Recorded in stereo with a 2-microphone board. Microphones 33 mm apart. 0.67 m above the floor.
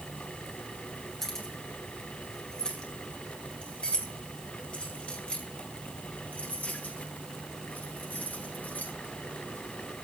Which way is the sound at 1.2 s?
15° left (ahead or behind).